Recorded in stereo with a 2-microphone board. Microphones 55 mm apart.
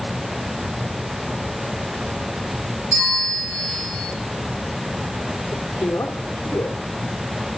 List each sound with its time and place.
2.9 s a bell: 80° right, 8.5 m
5.5 s a man speaking: 65° left (ahead or behind), 1.6 m